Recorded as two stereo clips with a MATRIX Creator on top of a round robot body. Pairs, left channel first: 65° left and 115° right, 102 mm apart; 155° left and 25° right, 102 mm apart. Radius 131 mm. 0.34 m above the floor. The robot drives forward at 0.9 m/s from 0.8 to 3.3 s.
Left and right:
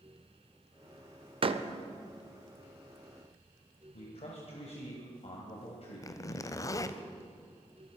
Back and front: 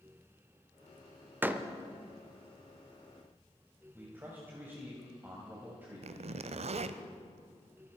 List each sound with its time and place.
1.4 s a door slam: 90° right, 0.9 m; by 1.7 s 110° right, 0.9 m
3.9 s a man speaking: 50° left, 2.5 m
6.0 s a zipper: 5° left, 0.5 m